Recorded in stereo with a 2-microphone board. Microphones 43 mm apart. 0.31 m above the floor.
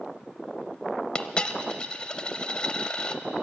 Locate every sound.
1.1 s a dropped coin: 25° left (ahead or behind), 0.5 m